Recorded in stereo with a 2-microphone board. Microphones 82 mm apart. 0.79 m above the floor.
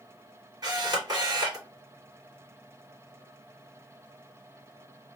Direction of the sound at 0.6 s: 45° right (ahead or behind).